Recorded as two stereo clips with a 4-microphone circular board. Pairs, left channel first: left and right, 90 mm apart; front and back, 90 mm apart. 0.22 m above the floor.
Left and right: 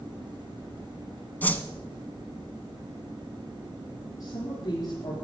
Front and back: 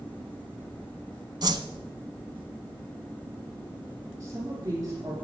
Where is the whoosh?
160° left, 0.7 m.